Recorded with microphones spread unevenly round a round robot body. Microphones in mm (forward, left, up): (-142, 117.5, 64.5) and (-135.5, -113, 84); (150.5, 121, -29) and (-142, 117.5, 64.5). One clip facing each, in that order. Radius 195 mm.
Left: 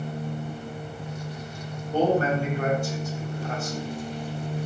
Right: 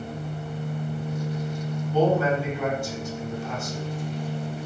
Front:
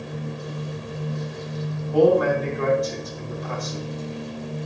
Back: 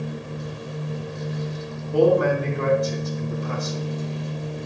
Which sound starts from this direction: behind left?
A man speaking, at 1.9 s.